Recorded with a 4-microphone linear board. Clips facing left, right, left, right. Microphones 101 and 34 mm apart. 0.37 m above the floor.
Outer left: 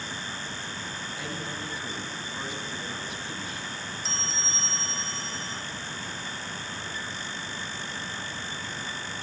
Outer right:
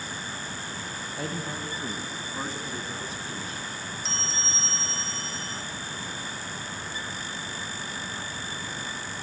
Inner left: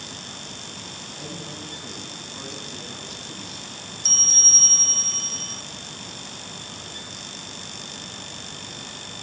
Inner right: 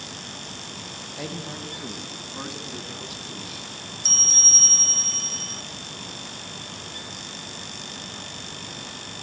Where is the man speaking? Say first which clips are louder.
Outer right 4 dB, inner right 4 dB; 35° right (ahead or behind), 3.5 m; by 3.7 s 30° right (ahead or behind), 5 m.